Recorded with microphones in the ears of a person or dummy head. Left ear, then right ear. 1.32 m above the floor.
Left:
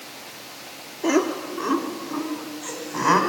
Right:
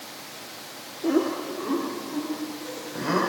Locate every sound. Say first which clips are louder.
1.0 s laughter: left 3 dB; 65° left (ahead or behind), 2.5 m; by 3.2 s 45° left (ahead or behind), 4 m